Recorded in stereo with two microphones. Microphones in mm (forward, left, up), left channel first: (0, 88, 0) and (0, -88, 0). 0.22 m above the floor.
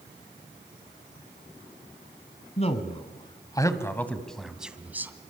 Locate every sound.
2.6 s a man speaking: 40° left (ahead or behind), 2.0 m; by 5.1 s 10° right (ahead or behind), 2 m